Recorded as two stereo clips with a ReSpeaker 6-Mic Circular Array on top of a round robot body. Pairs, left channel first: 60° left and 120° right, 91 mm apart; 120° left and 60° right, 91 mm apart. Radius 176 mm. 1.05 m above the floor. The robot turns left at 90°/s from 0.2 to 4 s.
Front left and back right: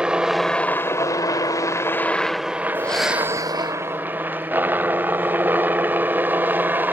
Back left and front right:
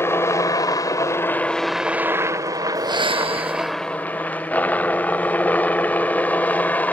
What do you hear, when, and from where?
0.0 s a helicopter: 165° left; by 7.0 s 175° right
2.8 s breathing: 10° right; by 3.8 s 100° right